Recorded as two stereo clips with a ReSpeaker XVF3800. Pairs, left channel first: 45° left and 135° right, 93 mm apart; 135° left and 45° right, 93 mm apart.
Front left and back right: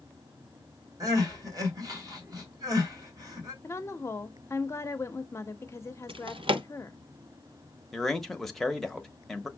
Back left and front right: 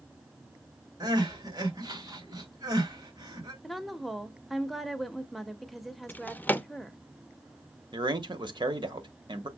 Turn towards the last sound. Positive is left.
turn(degrees=-40)